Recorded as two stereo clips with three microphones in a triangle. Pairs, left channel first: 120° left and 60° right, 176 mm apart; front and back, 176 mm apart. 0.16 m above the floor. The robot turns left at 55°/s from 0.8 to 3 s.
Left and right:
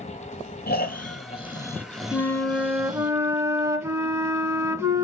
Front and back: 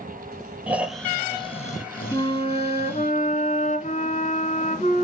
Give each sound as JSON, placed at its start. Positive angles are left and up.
{"t": 0.7, "sound": "snoring", "azimuth_deg": 100, "distance_m": 1.1}
{"t": 2.1, "sound": "a flute", "azimuth_deg": 50, "distance_m": 1.1}